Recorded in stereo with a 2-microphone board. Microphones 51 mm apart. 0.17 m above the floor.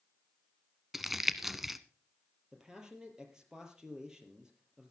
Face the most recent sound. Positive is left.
turn(degrees=-15)  # may be behind; listen again after turning